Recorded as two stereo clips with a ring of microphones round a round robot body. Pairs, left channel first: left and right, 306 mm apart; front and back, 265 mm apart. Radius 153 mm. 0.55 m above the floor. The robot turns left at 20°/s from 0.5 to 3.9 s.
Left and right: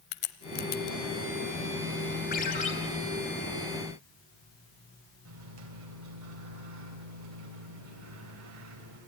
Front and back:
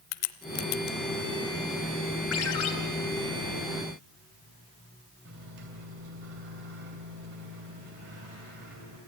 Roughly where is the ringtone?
Ahead left.